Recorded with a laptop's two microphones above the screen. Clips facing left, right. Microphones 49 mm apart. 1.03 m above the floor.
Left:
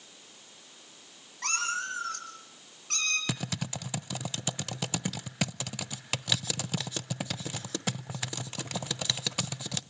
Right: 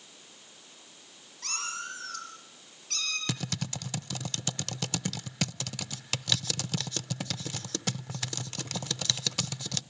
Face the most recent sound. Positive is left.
turn(degrees=10)  # may be behind; listen again after turning